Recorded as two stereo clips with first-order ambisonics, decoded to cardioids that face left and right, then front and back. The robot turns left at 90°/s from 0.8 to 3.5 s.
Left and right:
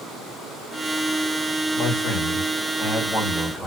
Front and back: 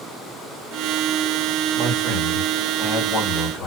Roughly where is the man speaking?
Behind left.